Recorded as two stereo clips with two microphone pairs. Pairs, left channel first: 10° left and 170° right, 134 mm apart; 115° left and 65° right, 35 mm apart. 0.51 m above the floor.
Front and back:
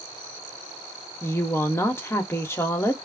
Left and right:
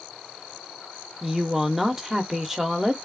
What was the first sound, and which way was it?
A woman speaking, 20° right.